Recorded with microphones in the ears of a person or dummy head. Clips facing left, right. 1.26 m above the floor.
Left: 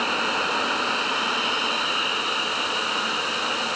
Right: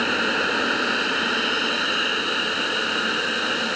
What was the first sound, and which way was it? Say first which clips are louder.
A machine running: right 3 dB; 20° right (ahead or behind).